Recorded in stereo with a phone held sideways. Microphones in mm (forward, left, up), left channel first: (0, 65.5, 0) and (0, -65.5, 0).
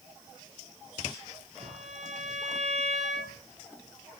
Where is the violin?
65° right (ahead or behind), 4.5 m.